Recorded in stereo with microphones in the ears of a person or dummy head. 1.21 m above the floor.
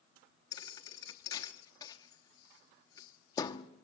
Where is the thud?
20° left (ahead or behind), 1.0 m.